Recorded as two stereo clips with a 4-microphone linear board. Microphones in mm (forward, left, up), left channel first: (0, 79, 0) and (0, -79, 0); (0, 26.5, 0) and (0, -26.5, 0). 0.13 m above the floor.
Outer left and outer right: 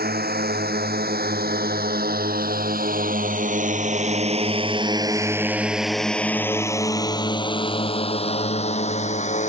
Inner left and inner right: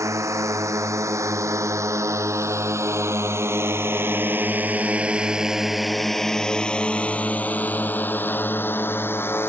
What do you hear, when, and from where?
0.0 s a drone: 80° right; by 9.5 s 45° left (ahead or behind)